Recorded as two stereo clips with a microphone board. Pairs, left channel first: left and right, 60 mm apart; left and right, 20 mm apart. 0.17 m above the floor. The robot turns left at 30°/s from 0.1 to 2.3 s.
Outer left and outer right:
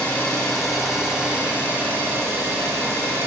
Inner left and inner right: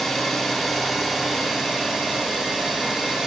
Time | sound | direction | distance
0.0 | an engine running | 20° left | 9 m